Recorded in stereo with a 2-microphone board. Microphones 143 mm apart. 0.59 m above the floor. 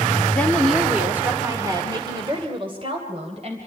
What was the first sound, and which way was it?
A woman speaking, 10° left (ahead or behind).